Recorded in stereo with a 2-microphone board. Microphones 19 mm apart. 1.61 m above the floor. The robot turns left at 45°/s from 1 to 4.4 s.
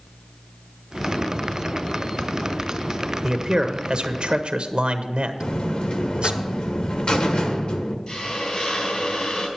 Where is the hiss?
55° left (ahead or behind), 3 m.